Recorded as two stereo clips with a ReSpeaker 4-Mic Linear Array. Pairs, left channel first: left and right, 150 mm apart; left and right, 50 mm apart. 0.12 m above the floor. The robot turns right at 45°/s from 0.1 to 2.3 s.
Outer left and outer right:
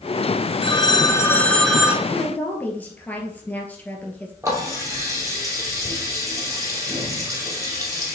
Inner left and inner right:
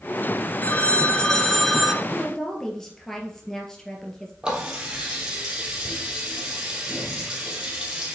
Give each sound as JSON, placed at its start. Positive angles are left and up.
{"t": 0.6, "sound": "a phone ringing", "azimuth_deg": 130, "distance_m": 1.2}
{"t": 2.0, "sound": "a woman speaking", "side_deg": 20, "distance_m": 2.0}
{"t": 4.4, "sound": "a running tap", "side_deg": -20, "distance_m": 2.5}